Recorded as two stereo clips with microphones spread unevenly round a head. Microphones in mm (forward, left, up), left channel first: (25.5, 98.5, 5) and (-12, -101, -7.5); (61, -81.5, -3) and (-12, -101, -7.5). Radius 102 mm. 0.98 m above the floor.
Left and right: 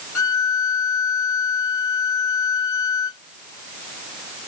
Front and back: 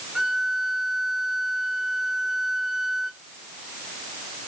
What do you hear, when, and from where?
0.1 s a violin: 105° left